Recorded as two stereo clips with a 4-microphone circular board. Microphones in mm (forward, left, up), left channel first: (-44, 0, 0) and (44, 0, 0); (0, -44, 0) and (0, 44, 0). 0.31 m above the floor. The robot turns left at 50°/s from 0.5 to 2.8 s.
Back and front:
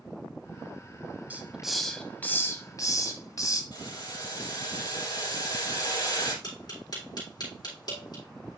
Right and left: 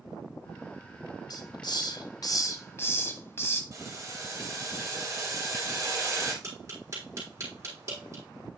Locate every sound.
1.3 s a hiss: 70° right, 1.2 m; by 3.6 s 145° right, 1.2 m
3.7 s boiling: 145° left, 4 m
6.4 s tapping: 145° left, 4 m